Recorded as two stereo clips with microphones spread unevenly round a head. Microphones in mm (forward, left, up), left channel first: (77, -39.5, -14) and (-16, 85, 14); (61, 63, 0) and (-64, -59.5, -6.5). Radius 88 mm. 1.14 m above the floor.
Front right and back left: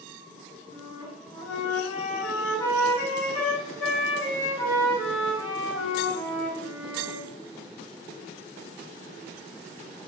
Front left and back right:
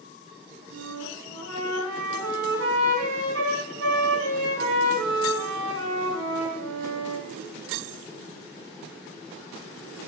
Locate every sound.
0.7 s a flute: 130° right, 4.5 m